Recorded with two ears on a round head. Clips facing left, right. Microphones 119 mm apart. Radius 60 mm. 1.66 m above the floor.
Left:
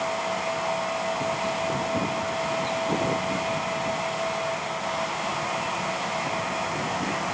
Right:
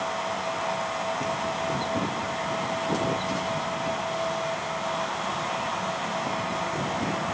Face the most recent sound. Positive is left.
No sound to turn to.